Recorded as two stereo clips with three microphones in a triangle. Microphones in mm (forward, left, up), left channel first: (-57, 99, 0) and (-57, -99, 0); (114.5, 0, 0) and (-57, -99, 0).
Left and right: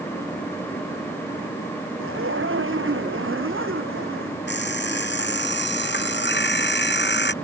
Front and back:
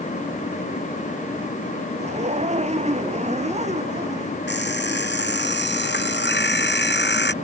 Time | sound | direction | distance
2.0 | a zipper | 95° right | ?
4.5 | an alarm clock | 60° left | ?